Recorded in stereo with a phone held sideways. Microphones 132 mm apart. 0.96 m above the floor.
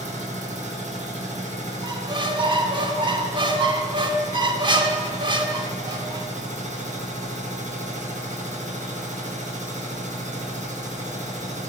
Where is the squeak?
35° right (ahead or behind), 0.7 m.